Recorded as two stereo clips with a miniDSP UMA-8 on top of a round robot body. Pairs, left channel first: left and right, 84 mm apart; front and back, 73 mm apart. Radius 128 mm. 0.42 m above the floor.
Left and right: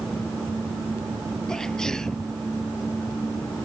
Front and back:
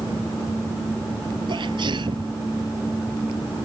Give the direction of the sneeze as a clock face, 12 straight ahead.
6 o'clock.